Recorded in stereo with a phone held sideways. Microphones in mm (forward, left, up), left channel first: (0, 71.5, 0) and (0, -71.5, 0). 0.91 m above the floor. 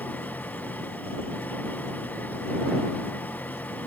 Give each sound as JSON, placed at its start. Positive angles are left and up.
{"t": 0.0, "sound": "an engine running", "side_deg": 10}